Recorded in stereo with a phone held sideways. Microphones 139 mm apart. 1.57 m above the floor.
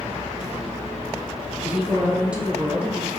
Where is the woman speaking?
10° right (ahead or behind), 1.2 m.